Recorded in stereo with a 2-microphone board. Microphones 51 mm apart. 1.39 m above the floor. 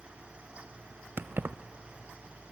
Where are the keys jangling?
40° right (ahead or behind), 0.5 m.